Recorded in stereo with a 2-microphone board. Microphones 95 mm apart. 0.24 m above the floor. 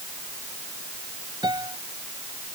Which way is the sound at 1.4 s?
45° right (ahead or behind).